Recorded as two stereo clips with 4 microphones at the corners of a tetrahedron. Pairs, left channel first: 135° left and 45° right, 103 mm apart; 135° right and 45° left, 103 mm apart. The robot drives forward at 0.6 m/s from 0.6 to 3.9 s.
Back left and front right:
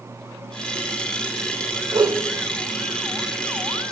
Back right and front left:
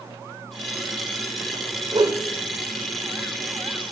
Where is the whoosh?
5° left, 0.6 m; by 2.2 s 10° left, 0.5 m.